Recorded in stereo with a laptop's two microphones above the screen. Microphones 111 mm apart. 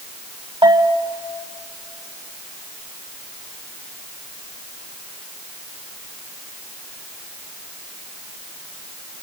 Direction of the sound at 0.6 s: 50° right (ahead or behind).